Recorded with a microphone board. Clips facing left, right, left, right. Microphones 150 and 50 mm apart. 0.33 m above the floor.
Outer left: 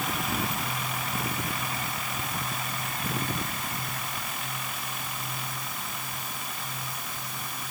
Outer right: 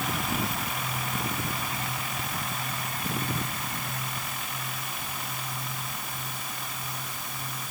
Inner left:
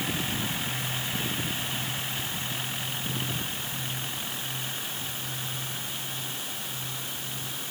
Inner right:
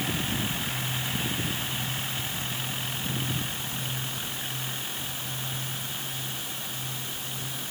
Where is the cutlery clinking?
I don't hear cutlery clinking.